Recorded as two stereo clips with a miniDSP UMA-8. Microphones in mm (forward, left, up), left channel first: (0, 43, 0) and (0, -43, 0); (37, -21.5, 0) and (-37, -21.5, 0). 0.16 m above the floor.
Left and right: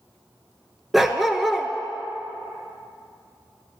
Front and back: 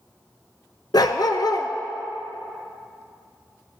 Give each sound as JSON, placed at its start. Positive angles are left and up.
{"t": 0.9, "sound": "a dog barking", "azimuth_deg": -5, "distance_m": 0.7}